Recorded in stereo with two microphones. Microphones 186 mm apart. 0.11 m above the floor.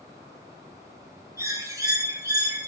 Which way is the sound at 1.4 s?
15° right (ahead or behind).